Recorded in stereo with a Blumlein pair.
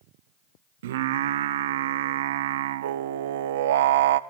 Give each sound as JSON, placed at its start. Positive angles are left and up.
{"t": 0.8, "sound": "singing", "azimuth_deg": -60, "distance_m": 0.9}